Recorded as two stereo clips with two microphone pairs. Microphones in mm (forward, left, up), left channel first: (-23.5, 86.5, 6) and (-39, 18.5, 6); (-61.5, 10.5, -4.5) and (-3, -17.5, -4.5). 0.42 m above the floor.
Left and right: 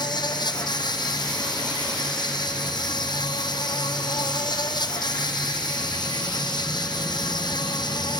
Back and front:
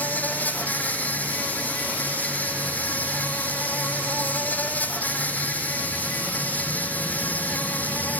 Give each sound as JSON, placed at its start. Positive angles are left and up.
{"t": 0.0, "sound": "an insect", "azimuth_deg": 90}